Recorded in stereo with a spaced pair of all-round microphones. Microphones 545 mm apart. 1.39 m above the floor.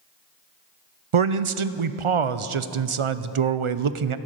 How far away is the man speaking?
About 0.6 m.